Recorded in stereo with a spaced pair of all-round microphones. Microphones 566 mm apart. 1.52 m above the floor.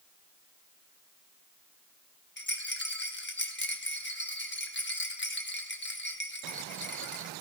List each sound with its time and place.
2.4 s a rattle: 20° left (ahead or behind), 1.0 m